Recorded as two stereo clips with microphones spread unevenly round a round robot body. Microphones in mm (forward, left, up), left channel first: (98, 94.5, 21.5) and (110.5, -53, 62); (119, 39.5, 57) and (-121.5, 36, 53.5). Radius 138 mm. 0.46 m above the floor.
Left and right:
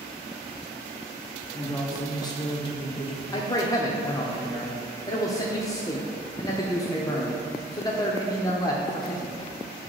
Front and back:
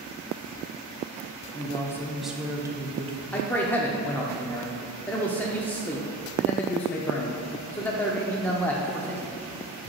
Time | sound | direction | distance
1.5 | a woman speaking | 55° left | 1.1 m
3.3 | a man speaking | 80° left | 0.9 m